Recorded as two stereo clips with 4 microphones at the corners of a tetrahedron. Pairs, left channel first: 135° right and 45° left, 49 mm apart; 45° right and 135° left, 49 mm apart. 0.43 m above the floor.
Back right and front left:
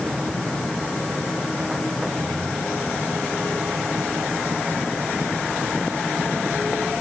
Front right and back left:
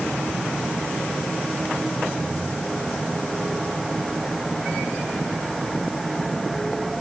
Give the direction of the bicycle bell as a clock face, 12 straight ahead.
I don't hear a bicycle bell.